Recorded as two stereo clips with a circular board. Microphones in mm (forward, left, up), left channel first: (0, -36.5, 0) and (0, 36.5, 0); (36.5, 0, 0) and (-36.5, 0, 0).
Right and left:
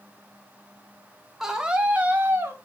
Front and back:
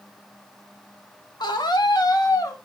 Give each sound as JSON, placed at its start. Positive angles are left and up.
{"t": 1.4, "sound": "a scream", "azimuth_deg": 5, "distance_m": 1.6}